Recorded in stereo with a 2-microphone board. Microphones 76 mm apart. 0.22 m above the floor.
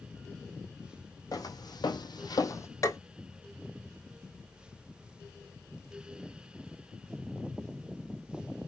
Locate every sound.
1.3 s footsteps: 55° left (ahead or behind), 0.7 m; by 2.7 s 40° left (ahead or behind), 0.5 m
2.8 s tapping: 45° left (ahead or behind), 0.8 m